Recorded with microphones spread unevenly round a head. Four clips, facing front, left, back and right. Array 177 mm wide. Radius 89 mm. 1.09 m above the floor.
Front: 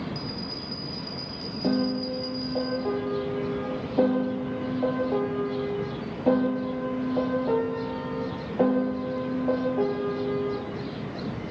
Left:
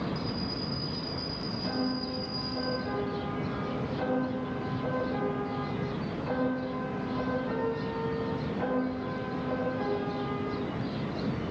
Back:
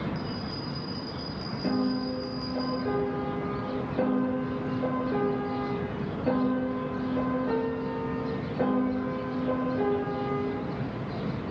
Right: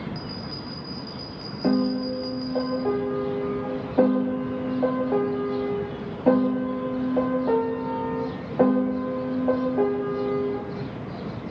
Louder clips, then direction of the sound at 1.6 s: Right 10 dB, front 2 dB; 70° right.